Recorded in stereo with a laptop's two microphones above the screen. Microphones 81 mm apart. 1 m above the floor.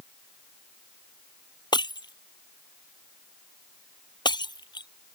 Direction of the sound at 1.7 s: 70° left (ahead or behind).